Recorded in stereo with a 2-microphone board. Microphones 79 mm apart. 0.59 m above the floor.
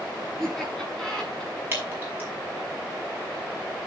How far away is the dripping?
About 6 m.